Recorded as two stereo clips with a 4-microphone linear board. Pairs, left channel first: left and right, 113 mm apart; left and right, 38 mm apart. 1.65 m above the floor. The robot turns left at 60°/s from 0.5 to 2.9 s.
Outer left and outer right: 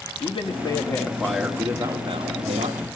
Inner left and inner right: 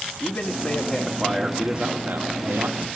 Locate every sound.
0.2 s a man speaking: 50° left, 1.5 m; by 2.9 s 90° right, 1.5 m